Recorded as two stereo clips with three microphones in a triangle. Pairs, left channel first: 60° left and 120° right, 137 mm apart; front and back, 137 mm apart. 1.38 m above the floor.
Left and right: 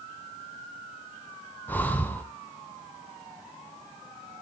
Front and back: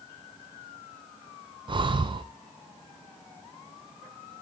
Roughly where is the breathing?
Behind left.